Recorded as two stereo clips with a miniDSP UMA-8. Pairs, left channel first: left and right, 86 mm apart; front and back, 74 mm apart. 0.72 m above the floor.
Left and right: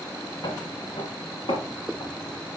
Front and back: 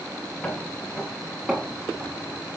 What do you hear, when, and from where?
0.4 s footsteps: 65° left, 2.0 m; by 2.5 s 100° left, 3.5 m